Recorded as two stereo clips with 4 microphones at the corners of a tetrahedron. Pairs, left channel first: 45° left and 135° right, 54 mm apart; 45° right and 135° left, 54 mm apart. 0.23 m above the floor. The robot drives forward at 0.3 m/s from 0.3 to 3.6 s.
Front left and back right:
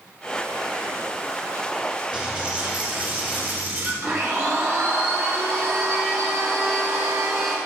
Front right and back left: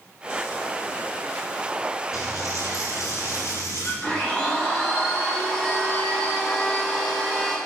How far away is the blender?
About 3 m.